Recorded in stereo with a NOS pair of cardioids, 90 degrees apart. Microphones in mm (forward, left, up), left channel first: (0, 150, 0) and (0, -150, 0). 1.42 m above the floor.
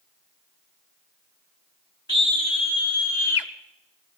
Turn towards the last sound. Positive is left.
turn(degrees=60)